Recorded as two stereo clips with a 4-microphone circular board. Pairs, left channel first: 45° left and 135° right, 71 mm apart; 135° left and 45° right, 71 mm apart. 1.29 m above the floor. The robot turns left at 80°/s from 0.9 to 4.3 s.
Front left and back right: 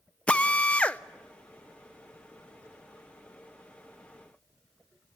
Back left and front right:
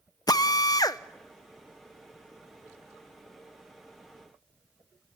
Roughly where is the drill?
Behind left.